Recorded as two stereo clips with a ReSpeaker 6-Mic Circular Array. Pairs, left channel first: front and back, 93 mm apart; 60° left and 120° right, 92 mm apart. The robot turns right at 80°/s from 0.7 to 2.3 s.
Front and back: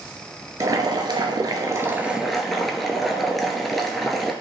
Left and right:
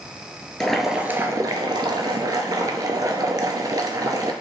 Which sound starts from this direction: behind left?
Boiling, at 0.6 s.